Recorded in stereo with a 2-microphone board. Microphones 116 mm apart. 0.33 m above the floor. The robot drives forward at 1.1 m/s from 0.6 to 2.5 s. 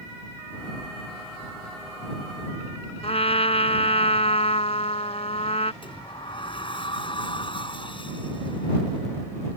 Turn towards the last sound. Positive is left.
turn(degrees=50)  # may be behind; listen again after turning